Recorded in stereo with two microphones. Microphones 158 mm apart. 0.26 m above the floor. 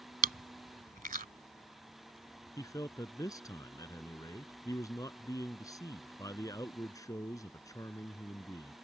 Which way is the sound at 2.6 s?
20° left (ahead or behind).